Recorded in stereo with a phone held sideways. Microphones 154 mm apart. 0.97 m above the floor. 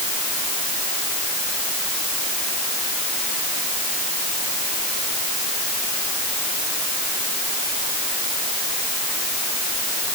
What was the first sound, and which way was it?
Only background noise.